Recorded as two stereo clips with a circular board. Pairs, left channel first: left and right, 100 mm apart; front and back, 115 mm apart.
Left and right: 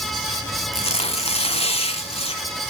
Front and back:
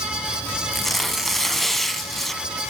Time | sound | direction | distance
0.7 | tearing paper | 90° left | 0.7 m